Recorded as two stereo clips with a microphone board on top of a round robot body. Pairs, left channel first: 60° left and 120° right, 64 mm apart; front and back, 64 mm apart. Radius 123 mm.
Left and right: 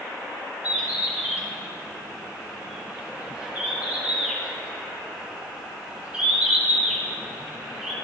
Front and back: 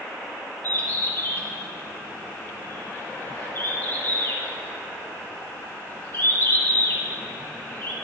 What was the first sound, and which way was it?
A bird, 50° right.